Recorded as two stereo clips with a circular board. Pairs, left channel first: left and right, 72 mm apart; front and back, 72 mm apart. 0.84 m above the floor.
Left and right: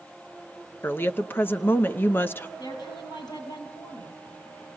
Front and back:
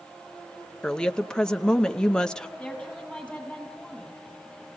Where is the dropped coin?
I don't hear a dropped coin.